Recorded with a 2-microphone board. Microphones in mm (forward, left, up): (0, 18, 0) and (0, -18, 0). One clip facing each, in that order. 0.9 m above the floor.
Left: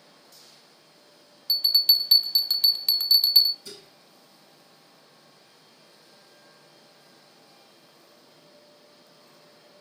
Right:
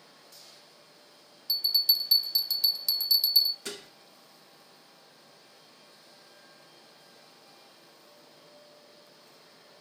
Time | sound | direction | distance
1.5 | a bell | 55° left (ahead or behind) | 0.5 m
3.6 | dishes clattering | 70° right (ahead or behind) | 0.6 m